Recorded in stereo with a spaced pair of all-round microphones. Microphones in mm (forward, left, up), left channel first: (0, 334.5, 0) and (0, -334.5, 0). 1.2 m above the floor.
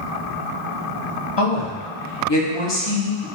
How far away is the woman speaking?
About 0.9 m.